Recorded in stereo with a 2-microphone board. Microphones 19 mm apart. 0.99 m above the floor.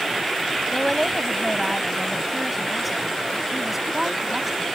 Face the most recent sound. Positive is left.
turn(degrees=-15)  # may be behind; listen again after turning